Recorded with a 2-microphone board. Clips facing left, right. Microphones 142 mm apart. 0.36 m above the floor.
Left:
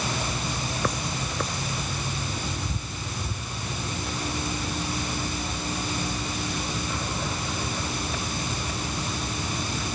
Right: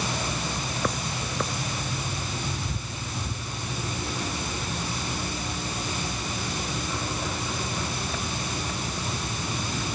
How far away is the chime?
I don't hear a chime.